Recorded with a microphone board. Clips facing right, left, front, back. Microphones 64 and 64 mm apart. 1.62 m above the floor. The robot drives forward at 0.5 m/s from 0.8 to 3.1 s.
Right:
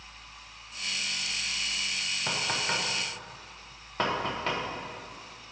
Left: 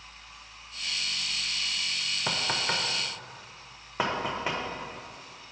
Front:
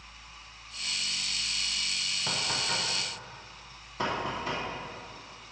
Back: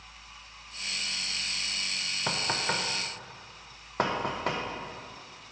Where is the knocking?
145° left, 0.5 m; by 4.6 s 165° left, 0.8 m.